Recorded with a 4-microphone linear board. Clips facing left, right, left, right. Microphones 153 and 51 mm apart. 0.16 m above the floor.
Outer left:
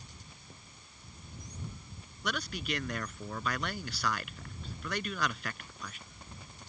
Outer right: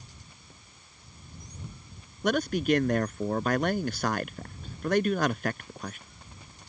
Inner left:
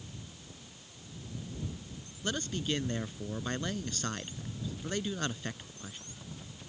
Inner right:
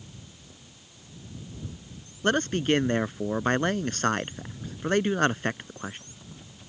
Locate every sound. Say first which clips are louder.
2.2 s a man speaking: outer right 12 dB, inner right 11 dB; 45° right (ahead or behind)